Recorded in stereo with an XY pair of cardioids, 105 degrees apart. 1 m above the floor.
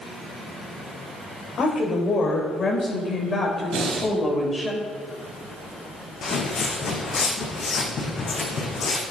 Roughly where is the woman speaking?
Ahead left.